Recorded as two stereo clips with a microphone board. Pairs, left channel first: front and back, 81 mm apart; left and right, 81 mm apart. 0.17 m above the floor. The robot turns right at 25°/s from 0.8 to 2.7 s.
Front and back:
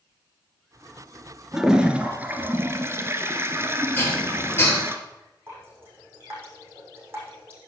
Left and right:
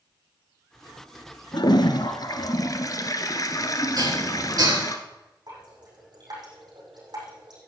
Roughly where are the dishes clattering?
Ahead right.